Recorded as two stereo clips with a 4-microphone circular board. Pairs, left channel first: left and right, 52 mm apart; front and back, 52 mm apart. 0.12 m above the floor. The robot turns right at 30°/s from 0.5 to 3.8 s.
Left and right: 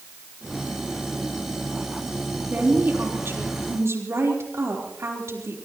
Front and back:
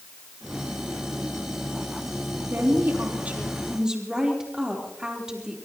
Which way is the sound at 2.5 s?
140° right.